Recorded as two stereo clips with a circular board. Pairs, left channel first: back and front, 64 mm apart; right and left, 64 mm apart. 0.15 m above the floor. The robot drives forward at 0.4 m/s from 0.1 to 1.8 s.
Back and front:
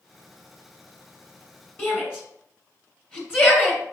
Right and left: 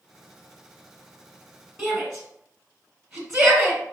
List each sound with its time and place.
1.8 s a shout: 165° left, 1.7 m